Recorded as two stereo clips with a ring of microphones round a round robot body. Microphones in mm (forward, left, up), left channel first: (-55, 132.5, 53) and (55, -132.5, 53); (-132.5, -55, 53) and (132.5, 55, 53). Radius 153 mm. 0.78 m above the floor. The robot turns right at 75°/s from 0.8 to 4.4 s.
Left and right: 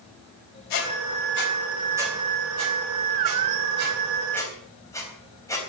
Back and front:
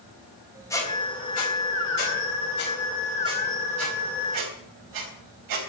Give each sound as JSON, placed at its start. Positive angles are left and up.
{"t": 0.7, "sound": "a squeak", "azimuth_deg": 120, "distance_m": 4.0}